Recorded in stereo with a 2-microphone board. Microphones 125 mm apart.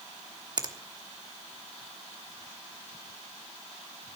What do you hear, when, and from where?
0.6 s a finger snap: 35° right (ahead or behind), 1.0 m